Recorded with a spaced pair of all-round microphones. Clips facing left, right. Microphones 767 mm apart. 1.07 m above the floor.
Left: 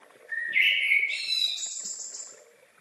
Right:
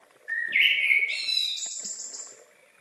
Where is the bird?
80° right, 1.8 m.